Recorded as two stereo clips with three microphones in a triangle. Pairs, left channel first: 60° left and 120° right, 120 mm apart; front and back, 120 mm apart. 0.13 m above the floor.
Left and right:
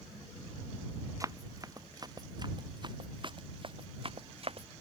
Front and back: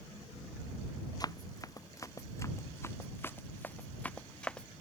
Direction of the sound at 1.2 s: 60° right.